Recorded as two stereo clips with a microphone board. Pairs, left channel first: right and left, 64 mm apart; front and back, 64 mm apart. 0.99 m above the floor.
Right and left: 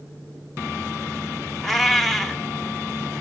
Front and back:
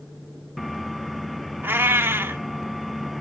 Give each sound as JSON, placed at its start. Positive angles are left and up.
{"t": 1.6, "sound": "a cat meowing", "azimuth_deg": -175, "distance_m": 0.6}